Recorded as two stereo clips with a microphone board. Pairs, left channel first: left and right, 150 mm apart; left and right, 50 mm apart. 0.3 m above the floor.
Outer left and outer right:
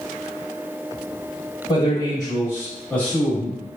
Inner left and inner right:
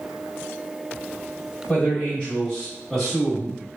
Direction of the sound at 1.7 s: 30° left (ahead or behind).